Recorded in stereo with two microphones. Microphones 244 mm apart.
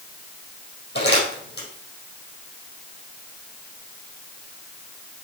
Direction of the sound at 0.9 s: 45° left (ahead or behind).